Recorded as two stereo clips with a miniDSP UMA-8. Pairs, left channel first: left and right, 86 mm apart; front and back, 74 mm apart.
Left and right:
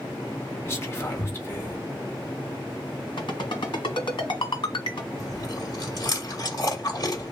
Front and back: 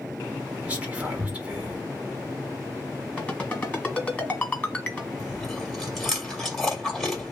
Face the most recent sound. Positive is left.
turn(degrees=85)